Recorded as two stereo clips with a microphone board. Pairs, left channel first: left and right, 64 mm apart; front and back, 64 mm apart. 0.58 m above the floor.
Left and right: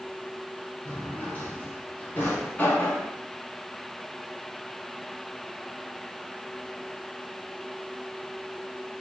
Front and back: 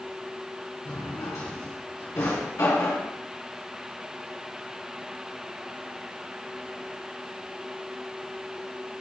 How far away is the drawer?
About 3.5 m.